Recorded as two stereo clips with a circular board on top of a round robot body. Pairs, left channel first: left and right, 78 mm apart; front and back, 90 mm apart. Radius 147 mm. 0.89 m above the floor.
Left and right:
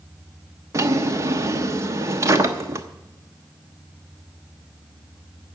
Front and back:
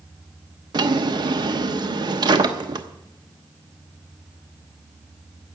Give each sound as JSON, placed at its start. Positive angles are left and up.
{"t": 0.7, "sound": "a drawer", "azimuth_deg": -140, "distance_m": 1.0}